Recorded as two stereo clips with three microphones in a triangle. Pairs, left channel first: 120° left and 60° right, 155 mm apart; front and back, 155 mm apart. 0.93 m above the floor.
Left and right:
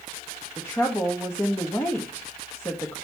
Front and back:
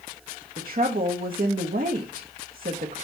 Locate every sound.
0.6 s a woman speaking: 170° right, 0.9 m